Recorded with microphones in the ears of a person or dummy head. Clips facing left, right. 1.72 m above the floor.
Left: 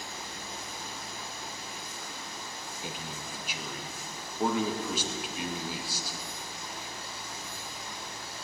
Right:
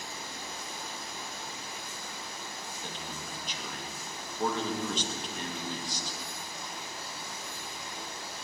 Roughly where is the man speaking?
Centre.